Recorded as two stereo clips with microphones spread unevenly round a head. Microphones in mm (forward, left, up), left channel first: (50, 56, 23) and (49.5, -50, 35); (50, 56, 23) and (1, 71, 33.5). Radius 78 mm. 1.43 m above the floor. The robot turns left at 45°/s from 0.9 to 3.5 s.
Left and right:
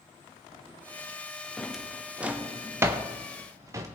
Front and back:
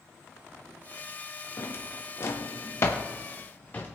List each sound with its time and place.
1.6 s a drawer: 5° right, 0.6 m; by 3.9 s 90° right, 0.6 m